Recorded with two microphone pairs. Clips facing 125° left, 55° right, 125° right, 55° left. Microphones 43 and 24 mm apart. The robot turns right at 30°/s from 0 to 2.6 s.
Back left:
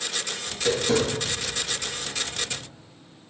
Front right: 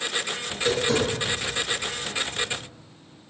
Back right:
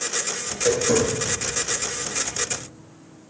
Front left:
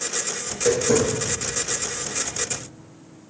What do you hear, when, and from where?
0.5 s tapping: 155° left, 1.4 m; by 2.6 s 140° right, 1.4 m